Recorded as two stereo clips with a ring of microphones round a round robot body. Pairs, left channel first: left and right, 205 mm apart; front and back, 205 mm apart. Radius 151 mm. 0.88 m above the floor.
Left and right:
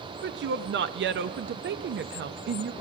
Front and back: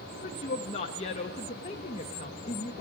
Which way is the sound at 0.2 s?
60° right.